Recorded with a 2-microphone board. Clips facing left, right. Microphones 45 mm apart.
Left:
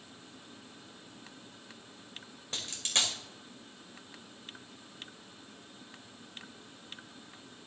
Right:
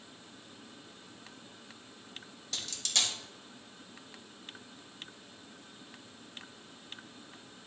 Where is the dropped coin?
30° left (ahead or behind), 2 m.